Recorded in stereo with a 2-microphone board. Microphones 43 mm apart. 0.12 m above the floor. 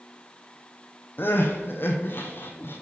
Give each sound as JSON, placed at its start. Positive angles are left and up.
{"t": 1.2, "sound": "crying", "side_deg": 60, "distance_m": 1.0}